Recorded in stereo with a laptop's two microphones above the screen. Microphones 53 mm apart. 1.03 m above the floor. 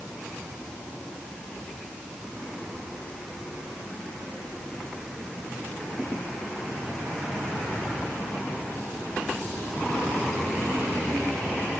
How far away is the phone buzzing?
No phone buzzing in this recording.